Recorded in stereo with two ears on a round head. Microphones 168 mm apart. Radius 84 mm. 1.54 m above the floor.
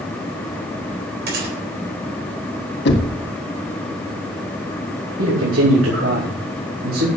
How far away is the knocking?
About 1.8 m.